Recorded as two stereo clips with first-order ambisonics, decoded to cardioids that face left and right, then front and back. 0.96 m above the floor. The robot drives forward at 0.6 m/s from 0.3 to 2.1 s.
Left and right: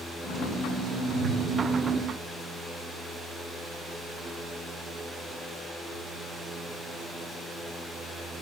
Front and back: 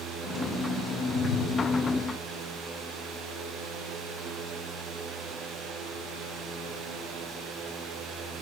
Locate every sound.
1.1 s a whoosh: 80° right, 1.5 m; by 1.5 s 90° right, 1.5 m